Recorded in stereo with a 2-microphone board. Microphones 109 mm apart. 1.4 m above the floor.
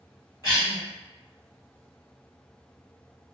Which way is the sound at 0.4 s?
35° left (ahead or behind).